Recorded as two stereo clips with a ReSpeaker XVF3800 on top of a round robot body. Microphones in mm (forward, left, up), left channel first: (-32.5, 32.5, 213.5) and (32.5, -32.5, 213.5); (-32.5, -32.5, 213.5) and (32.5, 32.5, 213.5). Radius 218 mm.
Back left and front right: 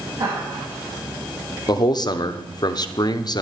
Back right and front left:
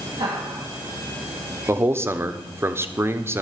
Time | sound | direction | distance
0.2 | laughter | 5° left | 4 m
1.7 | a man speaking | 105° left | 1.3 m